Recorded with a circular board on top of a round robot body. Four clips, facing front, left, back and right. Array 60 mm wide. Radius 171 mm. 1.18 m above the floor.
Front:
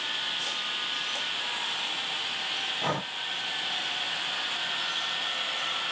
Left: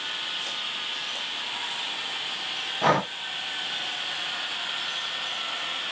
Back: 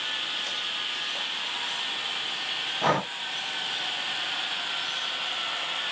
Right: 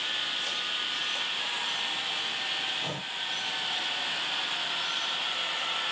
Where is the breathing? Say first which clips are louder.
Left 14 dB, back 7 dB; 115° left.